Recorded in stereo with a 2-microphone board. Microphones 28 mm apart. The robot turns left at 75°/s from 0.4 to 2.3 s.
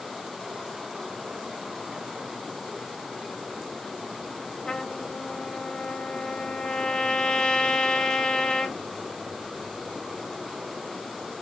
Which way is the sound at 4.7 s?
25° left (ahead or behind).